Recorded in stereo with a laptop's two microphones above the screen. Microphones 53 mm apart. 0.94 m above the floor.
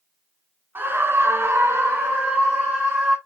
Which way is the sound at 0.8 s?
35° right (ahead or behind).